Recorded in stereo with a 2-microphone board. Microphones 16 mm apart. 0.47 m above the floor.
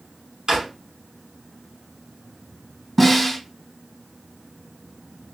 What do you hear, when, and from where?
0.5 s a drawer: 40° right (ahead or behind), 1.4 m
3.0 s a snare drum: 5° left (ahead or behind), 2.5 m